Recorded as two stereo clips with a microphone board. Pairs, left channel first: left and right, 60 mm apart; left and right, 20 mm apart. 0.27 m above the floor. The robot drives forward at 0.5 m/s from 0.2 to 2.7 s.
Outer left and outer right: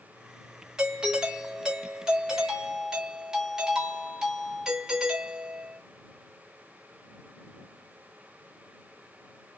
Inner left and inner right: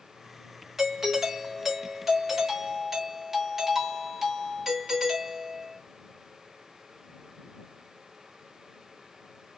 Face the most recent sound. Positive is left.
turn(degrees=-10)  # may be behind; listen again after turning